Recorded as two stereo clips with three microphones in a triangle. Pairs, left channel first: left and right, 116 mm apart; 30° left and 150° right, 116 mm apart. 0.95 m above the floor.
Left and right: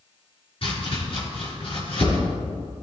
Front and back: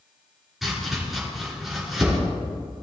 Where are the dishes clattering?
I don't hear dishes clattering.